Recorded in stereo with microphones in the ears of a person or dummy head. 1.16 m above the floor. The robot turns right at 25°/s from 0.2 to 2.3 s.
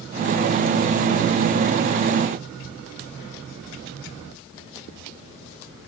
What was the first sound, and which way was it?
Only background noise.